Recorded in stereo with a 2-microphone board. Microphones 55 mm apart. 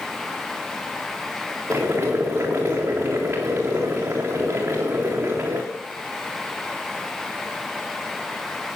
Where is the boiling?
35° right (ahead or behind), 4 m.